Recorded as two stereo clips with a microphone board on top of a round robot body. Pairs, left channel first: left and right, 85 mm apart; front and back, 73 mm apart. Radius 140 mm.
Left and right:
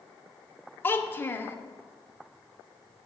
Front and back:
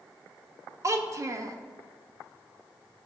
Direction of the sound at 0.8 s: 150° left.